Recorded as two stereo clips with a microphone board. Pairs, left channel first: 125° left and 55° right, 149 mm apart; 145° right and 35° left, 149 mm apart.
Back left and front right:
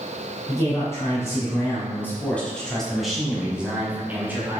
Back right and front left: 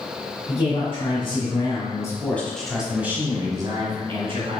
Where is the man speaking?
175° right, 1.8 m; by 4.6 s 15° left, 1.6 m.